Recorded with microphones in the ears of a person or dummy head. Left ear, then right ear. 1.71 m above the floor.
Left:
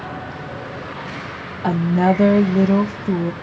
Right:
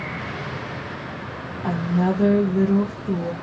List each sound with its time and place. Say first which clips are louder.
1.6 s a woman speaking: left 6 dB; 70° left (ahead or behind), 0.5 m